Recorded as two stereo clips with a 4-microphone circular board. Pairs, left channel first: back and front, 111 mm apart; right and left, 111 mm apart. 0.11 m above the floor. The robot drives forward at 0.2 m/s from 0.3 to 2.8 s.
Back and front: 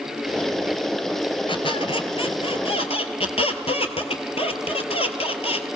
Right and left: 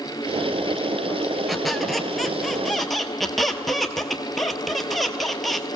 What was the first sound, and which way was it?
A squeak, straight behind.